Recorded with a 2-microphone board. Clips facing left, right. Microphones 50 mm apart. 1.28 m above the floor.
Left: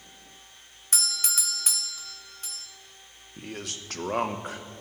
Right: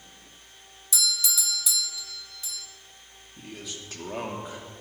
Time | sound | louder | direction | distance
0.9 | a doorbell | right 3 dB | 50° left (ahead or behind) | 0.7 m
3.4 | a man speaking | left 3 dB | 70° left (ahead or behind) | 1.2 m